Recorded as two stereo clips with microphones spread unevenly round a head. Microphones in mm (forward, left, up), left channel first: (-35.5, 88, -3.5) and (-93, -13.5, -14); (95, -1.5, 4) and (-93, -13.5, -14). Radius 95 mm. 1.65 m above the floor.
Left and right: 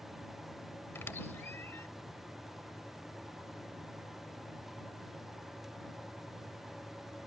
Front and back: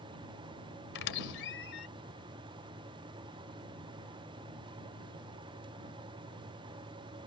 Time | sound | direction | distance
0.9 | a squeak | 15° right | ?